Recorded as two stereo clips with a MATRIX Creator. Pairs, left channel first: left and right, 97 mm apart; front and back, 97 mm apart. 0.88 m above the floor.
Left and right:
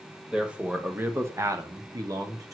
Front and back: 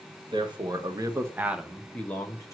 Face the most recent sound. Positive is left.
turn(degrees=-45)